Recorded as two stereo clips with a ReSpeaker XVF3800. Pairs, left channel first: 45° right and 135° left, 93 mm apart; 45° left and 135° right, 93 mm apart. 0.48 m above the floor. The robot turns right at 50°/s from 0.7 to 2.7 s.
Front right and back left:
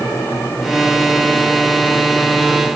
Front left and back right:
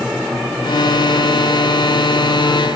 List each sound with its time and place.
Only background noise.